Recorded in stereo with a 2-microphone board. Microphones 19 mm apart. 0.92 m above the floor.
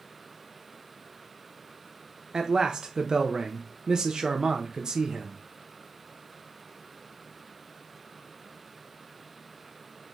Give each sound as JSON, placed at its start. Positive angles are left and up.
{"t": 2.3, "sound": "a man speaking", "side_deg": -40, "distance_m": 0.5}